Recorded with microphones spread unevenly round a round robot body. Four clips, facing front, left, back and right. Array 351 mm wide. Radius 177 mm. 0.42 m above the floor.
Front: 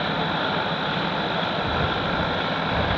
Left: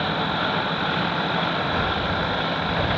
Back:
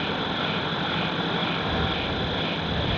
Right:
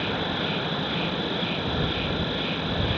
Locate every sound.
0.0 s an insect: 115° right